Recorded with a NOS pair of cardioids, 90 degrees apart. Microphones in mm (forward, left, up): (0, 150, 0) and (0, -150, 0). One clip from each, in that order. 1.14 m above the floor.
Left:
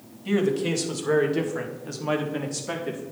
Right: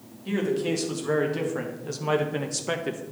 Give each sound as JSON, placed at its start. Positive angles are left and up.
{"t": 0.2, "sound": "a man speaking", "azimuth_deg": 20, "distance_m": 1.8}